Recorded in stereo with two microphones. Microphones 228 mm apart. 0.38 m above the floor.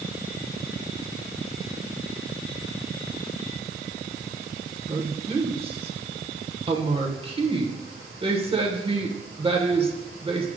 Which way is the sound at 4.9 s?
25° right (ahead or behind).